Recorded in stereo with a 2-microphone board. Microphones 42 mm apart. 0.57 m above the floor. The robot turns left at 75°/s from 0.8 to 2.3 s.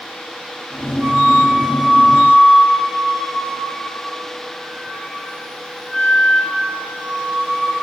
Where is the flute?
110° right, 1.5 m; by 7.7 s 155° left, 1.5 m.